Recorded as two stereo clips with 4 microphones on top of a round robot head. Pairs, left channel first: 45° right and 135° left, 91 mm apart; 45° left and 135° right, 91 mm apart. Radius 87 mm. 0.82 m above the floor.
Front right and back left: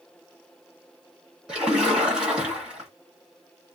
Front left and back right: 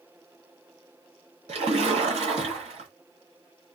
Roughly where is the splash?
Behind right.